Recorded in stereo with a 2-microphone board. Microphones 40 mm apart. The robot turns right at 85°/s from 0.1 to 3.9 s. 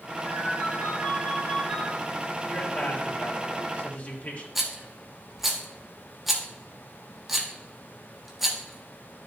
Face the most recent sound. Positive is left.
turn(degrees=-5)  # may be behind; listen again after turning